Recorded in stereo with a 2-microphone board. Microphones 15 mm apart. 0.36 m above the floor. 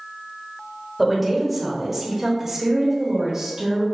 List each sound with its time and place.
1.0 s a woman speaking: 5° left (ahead or behind), 1.5 m; by 3.9 s 35° right (ahead or behind), 1.6 m